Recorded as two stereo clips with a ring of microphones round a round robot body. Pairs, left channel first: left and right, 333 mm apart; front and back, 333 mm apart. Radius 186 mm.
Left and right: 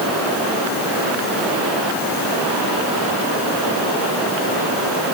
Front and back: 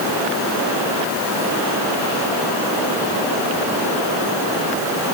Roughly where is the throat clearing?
No throat clearing in this recording.